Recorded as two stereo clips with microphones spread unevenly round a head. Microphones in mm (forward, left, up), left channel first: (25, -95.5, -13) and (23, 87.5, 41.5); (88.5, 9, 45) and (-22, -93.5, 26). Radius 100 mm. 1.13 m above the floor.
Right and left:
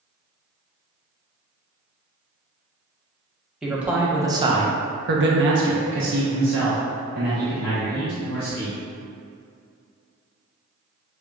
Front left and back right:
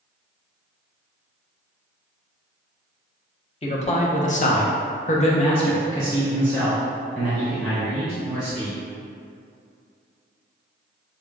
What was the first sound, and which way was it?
A man speaking, 5° right.